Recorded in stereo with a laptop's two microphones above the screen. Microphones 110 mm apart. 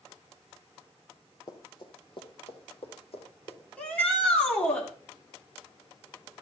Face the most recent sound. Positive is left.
turn(degrees=10)  # may be behind; listen again after turning